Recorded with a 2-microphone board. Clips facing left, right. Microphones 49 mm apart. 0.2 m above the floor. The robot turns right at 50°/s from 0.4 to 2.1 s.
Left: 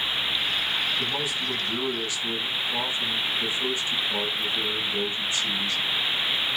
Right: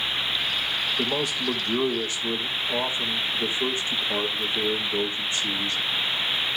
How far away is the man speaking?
About 6.5 m.